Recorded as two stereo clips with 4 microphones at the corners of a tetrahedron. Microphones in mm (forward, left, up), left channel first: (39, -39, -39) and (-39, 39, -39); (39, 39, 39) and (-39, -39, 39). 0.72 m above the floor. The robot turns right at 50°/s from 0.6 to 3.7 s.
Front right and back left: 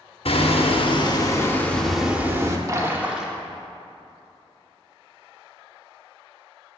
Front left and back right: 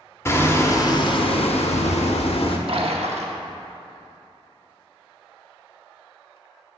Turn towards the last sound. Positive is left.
turn(degrees=-115)